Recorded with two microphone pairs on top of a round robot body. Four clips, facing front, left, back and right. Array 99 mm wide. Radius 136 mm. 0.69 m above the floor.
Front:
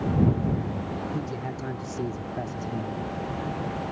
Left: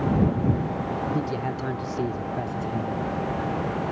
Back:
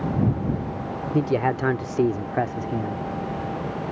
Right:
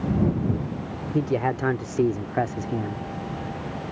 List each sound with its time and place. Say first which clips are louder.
1.1 s a man speaking: right 4 dB, back 10 dB; 155° right; by 3.0 s 125° right